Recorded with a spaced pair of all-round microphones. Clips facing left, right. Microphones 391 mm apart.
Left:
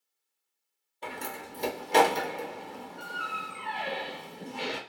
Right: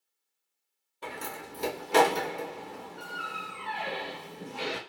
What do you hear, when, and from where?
1.0 s a door slam: 20° right (ahead or behind), 0.9 m